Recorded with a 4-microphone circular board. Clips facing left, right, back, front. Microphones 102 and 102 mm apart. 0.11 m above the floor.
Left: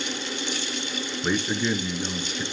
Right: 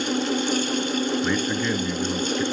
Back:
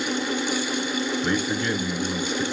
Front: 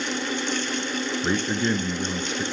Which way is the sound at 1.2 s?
30° left.